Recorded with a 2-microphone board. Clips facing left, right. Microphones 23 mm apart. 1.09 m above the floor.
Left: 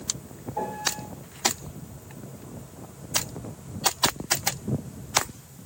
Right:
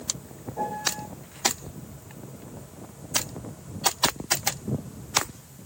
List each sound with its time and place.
0.6 s a piano: 60° left (ahead or behind), 8 m